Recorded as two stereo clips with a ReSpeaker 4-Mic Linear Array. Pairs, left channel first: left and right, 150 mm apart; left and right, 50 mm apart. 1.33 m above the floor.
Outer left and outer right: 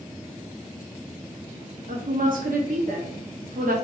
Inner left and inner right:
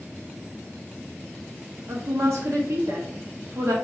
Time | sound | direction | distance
1.9 | a woman speaking | 65° right (ahead or behind) | 0.7 m